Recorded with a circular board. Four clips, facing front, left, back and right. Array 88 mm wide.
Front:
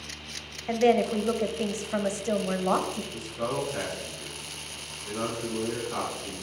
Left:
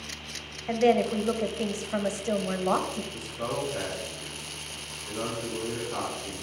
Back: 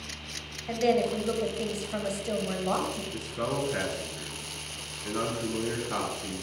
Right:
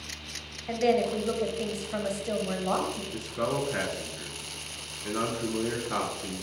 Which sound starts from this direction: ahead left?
A woman speaking, at 0.7 s.